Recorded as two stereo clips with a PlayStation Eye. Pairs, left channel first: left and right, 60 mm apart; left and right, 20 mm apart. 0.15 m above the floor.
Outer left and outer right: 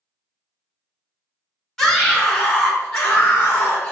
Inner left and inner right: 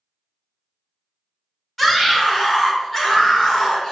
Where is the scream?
10° left (ahead or behind), 1.3 m; by 3.9 s 35° left (ahead or behind), 2.5 m.